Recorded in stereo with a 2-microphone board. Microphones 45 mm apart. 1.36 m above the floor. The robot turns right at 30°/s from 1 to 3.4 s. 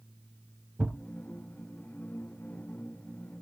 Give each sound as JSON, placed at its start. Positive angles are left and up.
{"t": 0.8, "sound": "a thud", "side_deg": -30, "distance_m": 1.5}